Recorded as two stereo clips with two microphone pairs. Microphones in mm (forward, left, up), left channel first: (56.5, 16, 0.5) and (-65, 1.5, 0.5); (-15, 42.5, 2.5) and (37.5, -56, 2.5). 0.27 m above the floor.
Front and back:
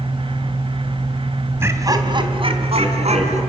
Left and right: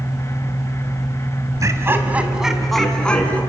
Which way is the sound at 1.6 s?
110° right.